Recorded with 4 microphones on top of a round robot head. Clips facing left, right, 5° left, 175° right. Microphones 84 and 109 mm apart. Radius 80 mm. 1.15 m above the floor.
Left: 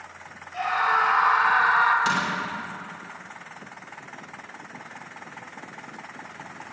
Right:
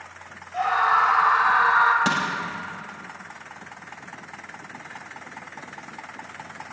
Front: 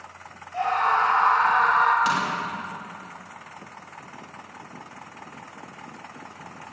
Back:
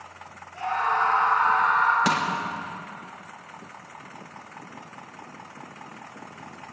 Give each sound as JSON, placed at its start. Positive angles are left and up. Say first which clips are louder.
{"t": 0.5, "sound": "a scream", "louder": "right 3 dB, front 3 dB", "azimuth_deg": -35, "distance_m": 5.0}
{"t": 2.0, "sound": "crushing", "louder": "right 1 dB, even", "azimuth_deg": -135, "distance_m": 3.0}